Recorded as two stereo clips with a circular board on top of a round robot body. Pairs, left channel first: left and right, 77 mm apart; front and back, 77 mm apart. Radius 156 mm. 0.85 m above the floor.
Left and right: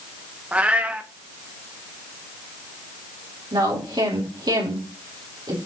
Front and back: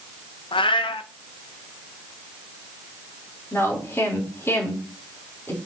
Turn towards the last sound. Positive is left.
turn(degrees=-60)